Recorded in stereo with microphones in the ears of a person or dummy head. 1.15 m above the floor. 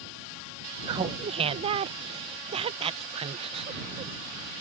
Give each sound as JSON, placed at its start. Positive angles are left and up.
{"t": 0.9, "sound": "laughter", "side_deg": -30}